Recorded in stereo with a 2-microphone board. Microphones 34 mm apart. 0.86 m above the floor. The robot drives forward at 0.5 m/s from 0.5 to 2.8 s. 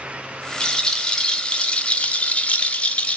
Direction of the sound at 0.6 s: 20° left (ahead or behind).